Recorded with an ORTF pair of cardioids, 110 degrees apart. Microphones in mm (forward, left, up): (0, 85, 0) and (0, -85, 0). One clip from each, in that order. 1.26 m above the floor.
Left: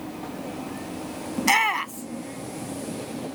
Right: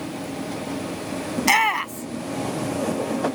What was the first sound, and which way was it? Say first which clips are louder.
A shout: right 2 dB; 10° right.